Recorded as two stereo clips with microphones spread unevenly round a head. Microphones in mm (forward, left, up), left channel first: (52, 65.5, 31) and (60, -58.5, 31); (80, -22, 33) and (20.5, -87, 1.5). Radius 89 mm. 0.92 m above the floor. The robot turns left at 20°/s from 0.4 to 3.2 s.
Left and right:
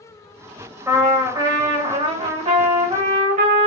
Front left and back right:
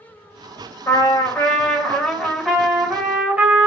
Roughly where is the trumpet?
Ahead.